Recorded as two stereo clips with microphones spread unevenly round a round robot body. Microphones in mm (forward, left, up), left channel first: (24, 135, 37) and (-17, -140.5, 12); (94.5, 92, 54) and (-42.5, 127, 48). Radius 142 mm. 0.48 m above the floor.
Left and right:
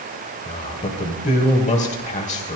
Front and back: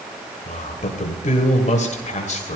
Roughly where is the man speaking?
Ahead.